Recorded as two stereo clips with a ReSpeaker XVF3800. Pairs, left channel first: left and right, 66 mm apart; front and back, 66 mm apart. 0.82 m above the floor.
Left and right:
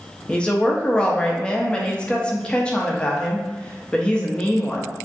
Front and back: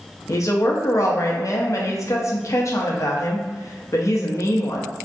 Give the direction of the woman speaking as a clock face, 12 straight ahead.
11 o'clock.